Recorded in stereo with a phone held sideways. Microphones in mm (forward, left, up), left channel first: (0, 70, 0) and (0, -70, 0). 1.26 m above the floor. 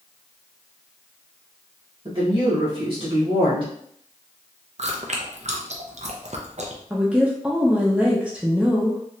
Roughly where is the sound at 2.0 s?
Right.